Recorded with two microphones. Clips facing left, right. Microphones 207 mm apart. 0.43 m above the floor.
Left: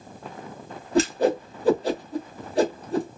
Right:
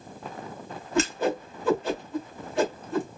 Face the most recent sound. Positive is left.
turn(degrees=35)  # may be behind; listen again after turning